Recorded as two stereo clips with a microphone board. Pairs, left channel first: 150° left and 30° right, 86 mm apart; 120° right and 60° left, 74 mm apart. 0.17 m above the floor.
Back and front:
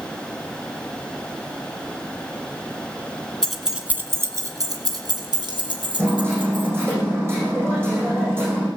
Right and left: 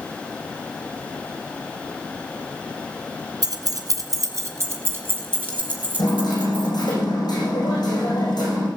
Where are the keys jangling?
70° left, 1.6 m; by 7.0 s 10° right, 5.5 m.